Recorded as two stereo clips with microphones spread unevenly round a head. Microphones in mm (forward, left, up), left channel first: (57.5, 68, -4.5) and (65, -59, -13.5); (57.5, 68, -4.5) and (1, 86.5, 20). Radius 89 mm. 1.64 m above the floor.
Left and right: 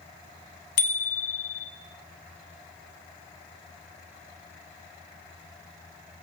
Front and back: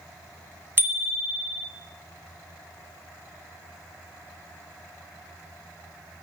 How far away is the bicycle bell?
About 4.5 m.